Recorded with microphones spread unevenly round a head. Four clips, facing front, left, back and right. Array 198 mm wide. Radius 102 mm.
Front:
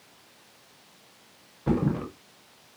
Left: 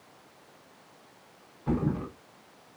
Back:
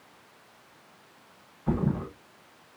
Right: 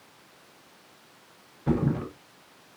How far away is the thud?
About 7 m.